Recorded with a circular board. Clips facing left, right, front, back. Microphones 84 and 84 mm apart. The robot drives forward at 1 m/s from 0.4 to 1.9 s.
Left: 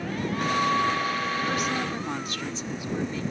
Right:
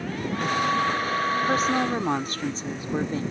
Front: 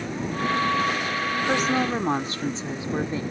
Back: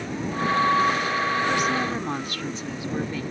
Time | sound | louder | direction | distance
1.5 | a woman speaking | right 5 dB, front 1 dB | 40° right | ?